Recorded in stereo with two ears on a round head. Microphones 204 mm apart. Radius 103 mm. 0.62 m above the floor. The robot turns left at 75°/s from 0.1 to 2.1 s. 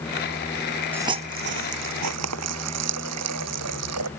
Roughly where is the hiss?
Centre.